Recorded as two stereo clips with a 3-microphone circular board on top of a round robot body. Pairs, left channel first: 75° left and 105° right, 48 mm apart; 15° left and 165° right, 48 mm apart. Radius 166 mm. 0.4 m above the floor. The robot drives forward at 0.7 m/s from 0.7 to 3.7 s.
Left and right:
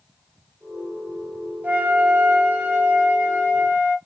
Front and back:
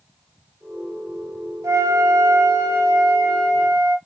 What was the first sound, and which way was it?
A flute, 160° right.